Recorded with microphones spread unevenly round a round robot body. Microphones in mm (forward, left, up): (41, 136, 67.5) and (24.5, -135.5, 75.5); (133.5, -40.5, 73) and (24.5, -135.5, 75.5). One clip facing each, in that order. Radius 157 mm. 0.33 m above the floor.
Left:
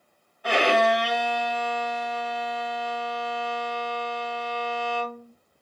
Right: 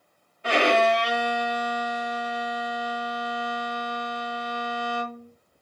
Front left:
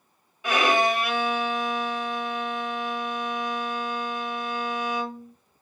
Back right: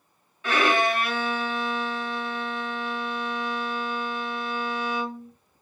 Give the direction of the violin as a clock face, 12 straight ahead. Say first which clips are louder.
Even, front left 1 dB; 1 o'clock.